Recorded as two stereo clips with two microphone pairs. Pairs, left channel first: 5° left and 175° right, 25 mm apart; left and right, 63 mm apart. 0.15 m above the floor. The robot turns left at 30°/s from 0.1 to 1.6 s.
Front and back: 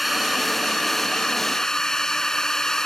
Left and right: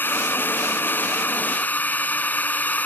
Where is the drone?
100° left; by 2.9 s 55° left.